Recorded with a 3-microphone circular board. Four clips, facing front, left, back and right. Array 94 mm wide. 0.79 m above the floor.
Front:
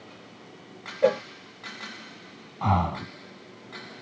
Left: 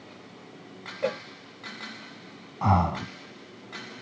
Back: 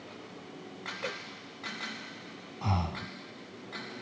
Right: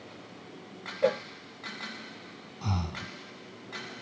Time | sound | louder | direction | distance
1.0 | a cowbell | right 3 dB, front 19 dB | 10° right | ?
2.6 | breathing | left 12 dB, front 9 dB | 55° left | ?